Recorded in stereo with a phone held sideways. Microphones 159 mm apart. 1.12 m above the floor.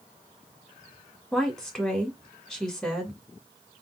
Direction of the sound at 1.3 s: 5° left (ahead or behind).